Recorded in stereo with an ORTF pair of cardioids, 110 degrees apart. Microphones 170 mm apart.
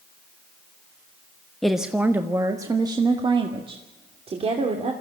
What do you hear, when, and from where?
1.6 s a woman speaking: straight ahead, 1.1 m; by 4.9 s 40° right, 3 m